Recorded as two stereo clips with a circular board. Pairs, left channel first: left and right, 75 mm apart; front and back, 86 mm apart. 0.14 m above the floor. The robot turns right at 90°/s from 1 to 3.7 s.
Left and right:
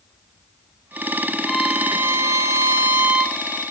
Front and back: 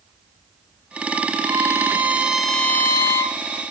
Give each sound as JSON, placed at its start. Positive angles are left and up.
{"t": 1.5, "sound": "a violin", "azimuth_deg": 180, "distance_m": 0.9}